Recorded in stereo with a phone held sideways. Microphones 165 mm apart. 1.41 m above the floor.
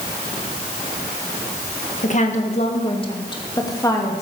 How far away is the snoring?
I don't hear snoring.